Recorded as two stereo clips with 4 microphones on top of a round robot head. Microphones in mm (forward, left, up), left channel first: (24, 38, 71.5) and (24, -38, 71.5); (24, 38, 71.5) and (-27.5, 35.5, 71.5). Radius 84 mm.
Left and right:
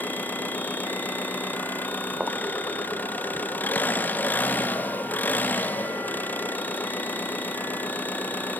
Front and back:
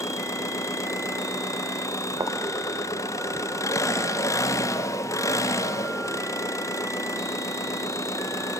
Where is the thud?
175° right, 0.8 m.